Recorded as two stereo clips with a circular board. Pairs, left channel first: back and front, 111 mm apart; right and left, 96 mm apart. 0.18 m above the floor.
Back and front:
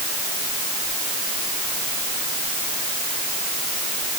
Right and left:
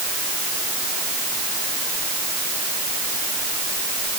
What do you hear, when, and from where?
Only background noise.